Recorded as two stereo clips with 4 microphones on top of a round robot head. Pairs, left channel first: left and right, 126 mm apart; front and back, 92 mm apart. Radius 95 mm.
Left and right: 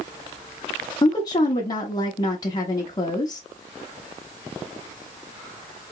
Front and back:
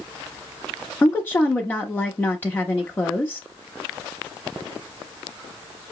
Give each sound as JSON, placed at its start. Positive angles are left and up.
{"t": 1.0, "sound": "a woman speaking", "azimuth_deg": 55, "distance_m": 0.9}